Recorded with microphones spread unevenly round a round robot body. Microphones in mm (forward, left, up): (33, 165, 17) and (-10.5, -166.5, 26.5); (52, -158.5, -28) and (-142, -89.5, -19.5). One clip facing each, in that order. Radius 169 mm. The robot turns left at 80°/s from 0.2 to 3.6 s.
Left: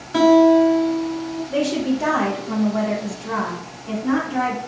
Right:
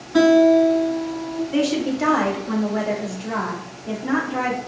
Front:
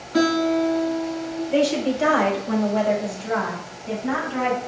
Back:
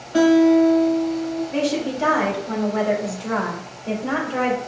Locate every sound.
0.1 s a guitar: 75° left, 1.8 m; by 1.4 s 20° right, 1.8 m
1.5 s a woman speaking: 15° right, 2.5 m; by 4.6 s straight behind, 2.5 m